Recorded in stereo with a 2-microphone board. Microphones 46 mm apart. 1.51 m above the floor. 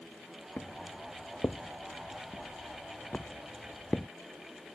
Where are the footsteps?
40° left (ahead or behind); by 4.1 s 20° left (ahead or behind).